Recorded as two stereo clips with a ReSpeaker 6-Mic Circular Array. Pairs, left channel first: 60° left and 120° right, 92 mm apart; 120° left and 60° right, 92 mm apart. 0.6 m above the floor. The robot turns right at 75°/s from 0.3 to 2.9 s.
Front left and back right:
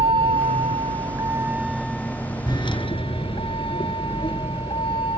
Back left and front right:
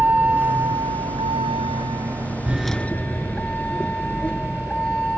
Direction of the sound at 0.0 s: 130° right.